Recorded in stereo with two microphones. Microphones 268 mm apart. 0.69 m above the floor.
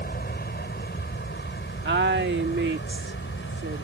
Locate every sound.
0.0 s an aircraft: 35° left (ahead or behind); by 3.8 s 45° left (ahead or behind)
1.9 s a woman speaking: 40° right (ahead or behind)